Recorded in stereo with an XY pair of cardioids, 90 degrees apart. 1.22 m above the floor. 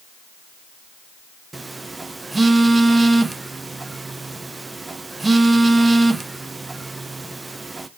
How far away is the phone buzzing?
About 0.6 m.